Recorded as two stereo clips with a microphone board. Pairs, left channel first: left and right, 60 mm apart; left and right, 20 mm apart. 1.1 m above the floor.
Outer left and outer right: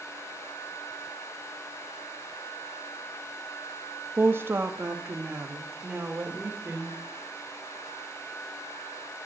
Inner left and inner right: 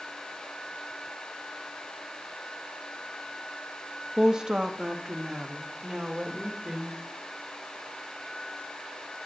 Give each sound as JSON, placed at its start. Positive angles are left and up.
{"t": 4.2, "sound": "a woman speaking", "side_deg": -40, "distance_m": 1.5}